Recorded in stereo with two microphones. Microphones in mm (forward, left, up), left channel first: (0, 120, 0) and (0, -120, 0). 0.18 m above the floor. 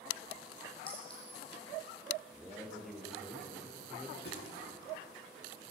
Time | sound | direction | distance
0.9 | a clink | 20° left (ahead or behind) | 4.5 m
2.3 | a man speaking | centre (ahead or behind) | 3.5 m
4.2 | a thud | 45° left (ahead or behind) | 6 m